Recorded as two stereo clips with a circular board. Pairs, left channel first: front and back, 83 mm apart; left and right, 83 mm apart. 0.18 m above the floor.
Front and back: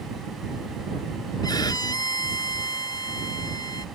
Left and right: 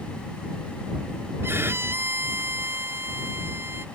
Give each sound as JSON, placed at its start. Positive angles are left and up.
{"t": 1.4, "sound": "a violin", "azimuth_deg": -30}